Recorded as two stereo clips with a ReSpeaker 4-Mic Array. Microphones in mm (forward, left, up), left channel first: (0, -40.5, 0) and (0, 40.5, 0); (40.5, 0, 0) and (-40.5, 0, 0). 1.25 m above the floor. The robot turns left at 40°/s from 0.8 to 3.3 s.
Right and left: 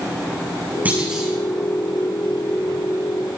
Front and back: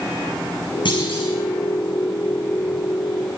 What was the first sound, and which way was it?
A clunk, 20° left.